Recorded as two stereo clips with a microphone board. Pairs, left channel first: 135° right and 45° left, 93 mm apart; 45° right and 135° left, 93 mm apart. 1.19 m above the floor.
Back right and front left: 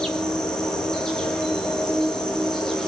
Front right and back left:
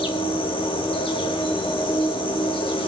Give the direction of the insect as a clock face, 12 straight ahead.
2 o'clock.